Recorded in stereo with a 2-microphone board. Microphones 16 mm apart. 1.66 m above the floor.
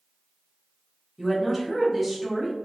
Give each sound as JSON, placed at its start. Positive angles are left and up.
{"t": 1.2, "sound": "a woman speaking", "side_deg": -10, "distance_m": 1.1}